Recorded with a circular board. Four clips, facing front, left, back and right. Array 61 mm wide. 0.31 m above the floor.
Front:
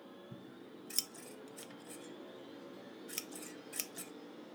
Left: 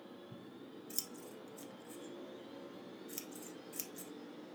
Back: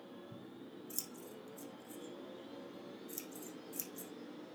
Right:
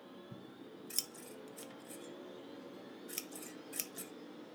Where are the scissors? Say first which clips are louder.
Even, back 1 dB; 30° right, 0.7 m.